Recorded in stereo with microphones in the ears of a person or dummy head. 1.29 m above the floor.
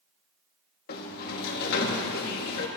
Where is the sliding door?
60° left (ahead or behind), 1.3 m.